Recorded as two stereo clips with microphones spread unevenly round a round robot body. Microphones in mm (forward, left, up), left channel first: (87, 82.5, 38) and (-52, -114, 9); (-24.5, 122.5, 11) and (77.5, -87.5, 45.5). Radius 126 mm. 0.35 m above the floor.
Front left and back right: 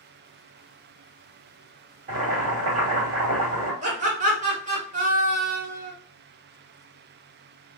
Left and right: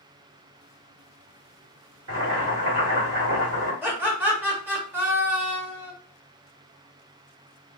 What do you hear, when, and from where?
2.1 s boiling: 90° right, 1.7 m
3.8 s laughter: 150° right, 1.1 m